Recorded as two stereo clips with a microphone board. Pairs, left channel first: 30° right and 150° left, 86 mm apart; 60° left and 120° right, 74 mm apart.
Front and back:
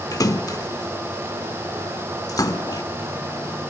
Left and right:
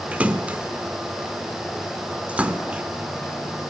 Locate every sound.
0.1 s a splash: 55° right, 1.1 m